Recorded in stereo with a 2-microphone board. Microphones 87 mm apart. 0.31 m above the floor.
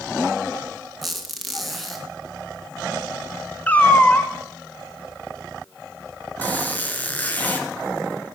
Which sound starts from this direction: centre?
A squeak, at 1.0 s.